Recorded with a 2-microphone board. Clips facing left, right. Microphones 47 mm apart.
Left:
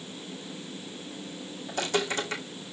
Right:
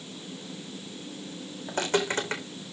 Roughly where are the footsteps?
Right.